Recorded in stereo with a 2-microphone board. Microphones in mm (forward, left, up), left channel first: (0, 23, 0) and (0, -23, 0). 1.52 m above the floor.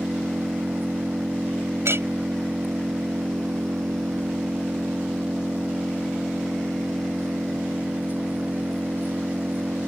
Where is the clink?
65° right (ahead or behind).